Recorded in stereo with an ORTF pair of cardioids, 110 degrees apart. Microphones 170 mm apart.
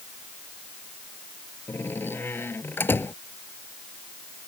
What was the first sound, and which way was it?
A door slam, 10° left.